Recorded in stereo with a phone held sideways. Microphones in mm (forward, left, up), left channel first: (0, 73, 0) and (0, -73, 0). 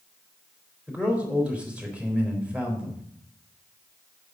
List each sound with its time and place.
0.9 s a man speaking: 5° right (ahead or behind), 3.5 m